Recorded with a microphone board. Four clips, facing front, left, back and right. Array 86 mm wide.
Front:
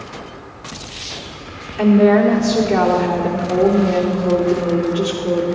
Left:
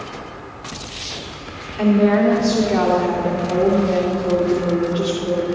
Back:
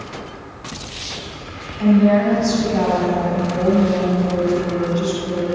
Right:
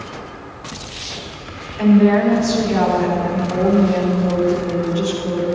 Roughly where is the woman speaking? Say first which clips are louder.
Right 2 dB, front 2 dB; ahead.